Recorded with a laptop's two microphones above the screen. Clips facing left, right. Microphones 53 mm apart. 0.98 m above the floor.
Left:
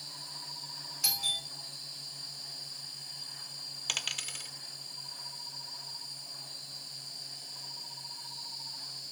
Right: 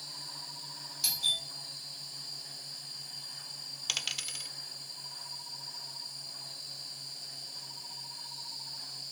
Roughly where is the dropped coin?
Centre.